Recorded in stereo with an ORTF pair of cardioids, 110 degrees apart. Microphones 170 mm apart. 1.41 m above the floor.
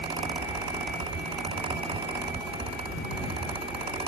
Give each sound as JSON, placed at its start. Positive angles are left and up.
{"t": 0.0, "sound": "a fan", "azimuth_deg": -35}